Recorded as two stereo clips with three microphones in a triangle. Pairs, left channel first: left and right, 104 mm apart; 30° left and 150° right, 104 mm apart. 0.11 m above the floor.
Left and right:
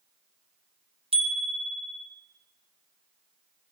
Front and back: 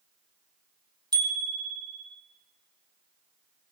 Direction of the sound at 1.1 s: 100° right.